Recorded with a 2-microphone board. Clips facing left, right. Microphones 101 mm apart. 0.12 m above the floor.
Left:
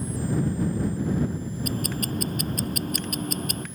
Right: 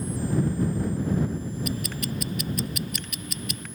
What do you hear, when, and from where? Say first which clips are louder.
1.6 s ticking: left 2 dB; 45° left (ahead or behind)